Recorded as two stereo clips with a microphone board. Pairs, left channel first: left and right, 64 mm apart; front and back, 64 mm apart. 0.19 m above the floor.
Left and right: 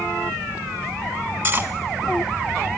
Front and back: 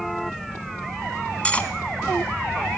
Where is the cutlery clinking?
60° right, 0.7 m.